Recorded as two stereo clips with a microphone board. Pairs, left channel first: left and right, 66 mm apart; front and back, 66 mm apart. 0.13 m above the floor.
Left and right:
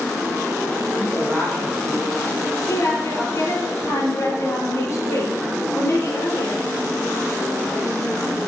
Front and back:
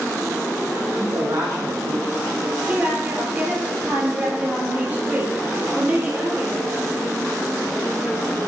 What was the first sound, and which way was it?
A man speaking, 175° right.